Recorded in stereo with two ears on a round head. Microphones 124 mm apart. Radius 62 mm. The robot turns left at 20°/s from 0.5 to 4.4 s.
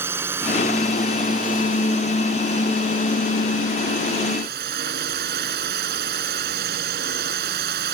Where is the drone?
15° right; by 8.0 s 95° right.